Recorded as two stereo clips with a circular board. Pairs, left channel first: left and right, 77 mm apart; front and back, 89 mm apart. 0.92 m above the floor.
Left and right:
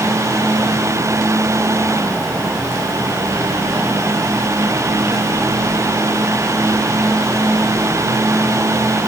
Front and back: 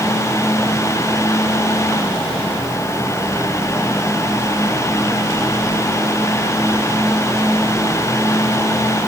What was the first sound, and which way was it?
Only background noise.